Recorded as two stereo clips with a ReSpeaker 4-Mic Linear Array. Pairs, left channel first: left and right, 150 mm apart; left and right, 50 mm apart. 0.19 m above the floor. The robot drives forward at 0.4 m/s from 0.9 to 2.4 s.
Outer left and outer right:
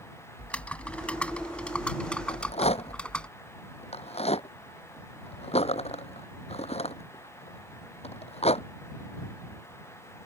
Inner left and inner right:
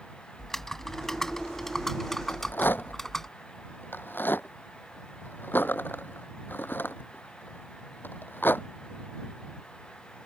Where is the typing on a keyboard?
10° left (ahead or behind); by 3.3 s 5° left (ahead or behind).